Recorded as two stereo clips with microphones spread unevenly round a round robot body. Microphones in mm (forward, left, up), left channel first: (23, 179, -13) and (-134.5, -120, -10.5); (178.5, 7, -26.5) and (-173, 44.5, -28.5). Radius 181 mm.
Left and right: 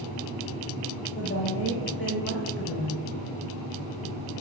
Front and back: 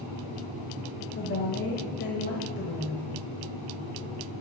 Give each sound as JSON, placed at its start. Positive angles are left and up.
{"t": 1.1, "sound": "a woman speaking", "azimuth_deg": 30, "distance_m": 1.0}